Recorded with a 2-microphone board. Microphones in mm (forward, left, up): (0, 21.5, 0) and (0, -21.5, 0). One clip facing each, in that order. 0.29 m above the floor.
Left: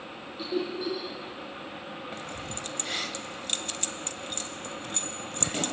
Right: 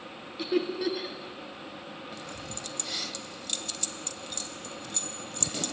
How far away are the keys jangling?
About 0.8 m.